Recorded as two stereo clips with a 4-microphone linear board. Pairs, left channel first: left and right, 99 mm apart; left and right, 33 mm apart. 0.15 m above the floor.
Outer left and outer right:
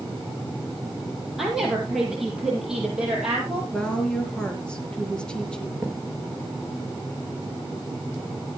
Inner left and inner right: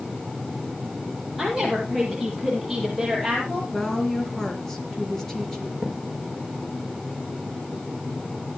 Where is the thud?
5° right (ahead or behind), 5 m.